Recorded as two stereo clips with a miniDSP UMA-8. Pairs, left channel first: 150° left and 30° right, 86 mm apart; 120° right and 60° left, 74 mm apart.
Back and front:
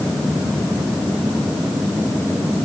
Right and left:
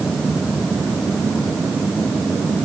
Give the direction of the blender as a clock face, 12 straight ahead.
I don't hear a blender.